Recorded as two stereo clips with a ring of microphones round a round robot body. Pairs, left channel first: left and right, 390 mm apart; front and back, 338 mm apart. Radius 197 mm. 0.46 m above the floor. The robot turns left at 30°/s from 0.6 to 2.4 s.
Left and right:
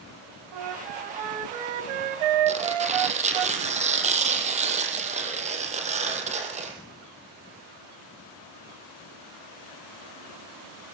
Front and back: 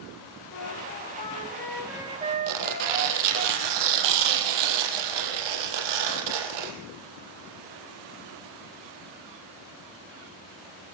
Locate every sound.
0.5 s a flute: 55° right, 2 m; by 3.5 s 110° right, 2 m
2.5 s tearing paper: 165° right, 4.5 m